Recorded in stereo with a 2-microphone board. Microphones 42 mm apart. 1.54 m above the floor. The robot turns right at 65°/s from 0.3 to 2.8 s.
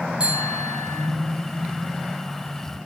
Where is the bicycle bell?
155° right, 8 m; by 1.1 s 105° right, 8 m.